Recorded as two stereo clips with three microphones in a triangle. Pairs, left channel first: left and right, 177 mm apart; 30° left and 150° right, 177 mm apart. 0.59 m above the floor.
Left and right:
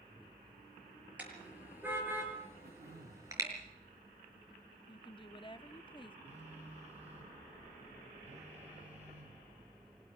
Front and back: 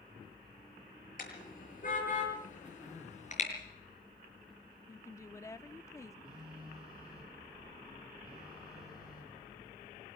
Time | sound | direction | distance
1.2 | a car horn | 10° right | 7 m
2.6 | throat clearing | 60° right | 9 m
4.9 | a woman speaking | 85° left | 0.8 m
6.2 | a phone buzzing | 40° right | 9 m